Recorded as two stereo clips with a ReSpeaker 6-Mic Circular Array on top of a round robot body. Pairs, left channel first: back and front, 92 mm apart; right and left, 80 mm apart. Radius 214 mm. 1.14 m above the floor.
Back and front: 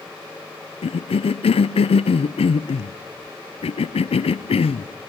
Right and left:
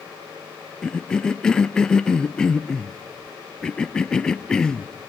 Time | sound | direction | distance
0.8 | a cough | 170° right | 0.6 m